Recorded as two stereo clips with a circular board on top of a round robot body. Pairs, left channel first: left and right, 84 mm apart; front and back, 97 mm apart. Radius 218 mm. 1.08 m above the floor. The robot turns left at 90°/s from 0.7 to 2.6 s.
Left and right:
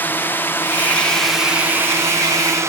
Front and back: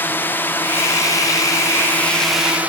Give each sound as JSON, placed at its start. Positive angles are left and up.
{"t": 0.0, "sound": "a drone", "azimuth_deg": 50}